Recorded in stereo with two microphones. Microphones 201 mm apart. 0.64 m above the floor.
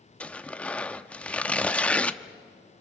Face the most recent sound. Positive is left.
turn(degrees=5)  # may be behind; listen again after turning